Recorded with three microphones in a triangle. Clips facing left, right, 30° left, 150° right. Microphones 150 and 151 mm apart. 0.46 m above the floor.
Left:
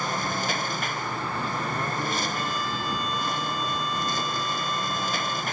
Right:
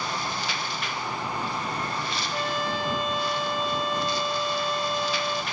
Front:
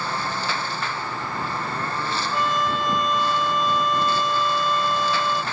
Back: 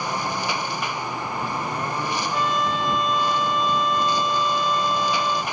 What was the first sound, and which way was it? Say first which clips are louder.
A lawn mower: left 2 dB, back 1 dB; 135° left.